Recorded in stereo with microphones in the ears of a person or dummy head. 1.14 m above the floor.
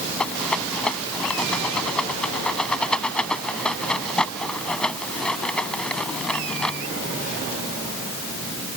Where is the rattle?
Centre (ahead or behind).